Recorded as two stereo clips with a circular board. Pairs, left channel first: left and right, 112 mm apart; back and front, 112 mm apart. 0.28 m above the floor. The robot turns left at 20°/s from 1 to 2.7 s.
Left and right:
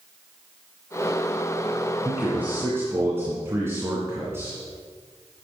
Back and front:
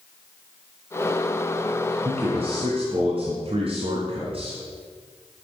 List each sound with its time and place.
2.0 s a man speaking: 10° right, 2.5 m; by 4.6 s 25° right, 2.5 m